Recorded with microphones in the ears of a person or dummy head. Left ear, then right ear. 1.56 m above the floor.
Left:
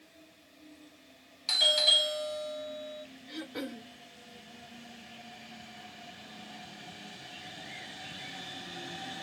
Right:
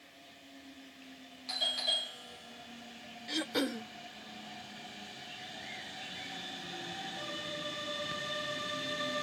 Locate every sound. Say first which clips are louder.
1.5 s a doorbell: left 9 dB; 25° left (ahead or behind), 0.8 m
3.3 s throat clearing: right 7 dB; 75° right (ahead or behind), 0.5 m